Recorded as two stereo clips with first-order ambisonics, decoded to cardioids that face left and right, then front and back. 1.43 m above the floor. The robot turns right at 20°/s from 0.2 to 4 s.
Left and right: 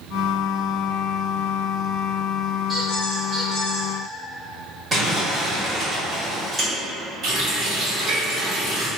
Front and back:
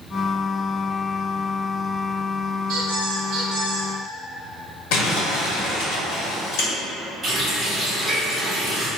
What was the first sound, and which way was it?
A squeak, 165° right.